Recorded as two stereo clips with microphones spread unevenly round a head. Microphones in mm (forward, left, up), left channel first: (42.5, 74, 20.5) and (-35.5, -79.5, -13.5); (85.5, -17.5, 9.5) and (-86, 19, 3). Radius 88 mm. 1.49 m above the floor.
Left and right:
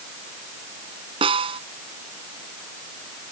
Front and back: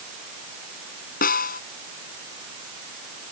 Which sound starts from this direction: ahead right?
A snare drum, at 1.2 s.